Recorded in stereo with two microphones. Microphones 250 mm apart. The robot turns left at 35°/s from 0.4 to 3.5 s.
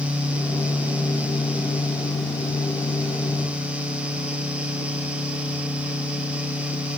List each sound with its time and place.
Only background noise.